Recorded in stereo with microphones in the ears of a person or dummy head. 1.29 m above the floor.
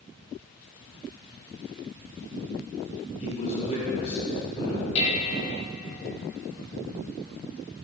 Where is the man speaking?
40° left (ahead or behind), 3 m.